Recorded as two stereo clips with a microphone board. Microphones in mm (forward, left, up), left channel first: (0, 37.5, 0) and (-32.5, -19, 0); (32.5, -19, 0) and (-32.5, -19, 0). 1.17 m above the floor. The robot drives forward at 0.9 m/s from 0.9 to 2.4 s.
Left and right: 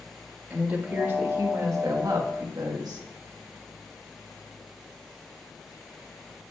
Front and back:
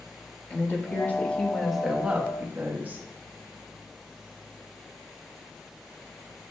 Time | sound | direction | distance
0.5 | a woman speaking | 60° right | 1.4 m